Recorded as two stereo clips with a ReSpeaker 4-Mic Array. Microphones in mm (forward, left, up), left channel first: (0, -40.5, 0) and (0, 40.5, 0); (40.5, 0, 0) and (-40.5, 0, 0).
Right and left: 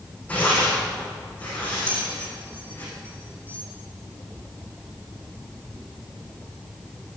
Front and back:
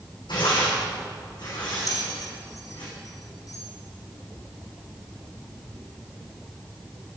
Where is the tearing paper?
20° right, 7 m.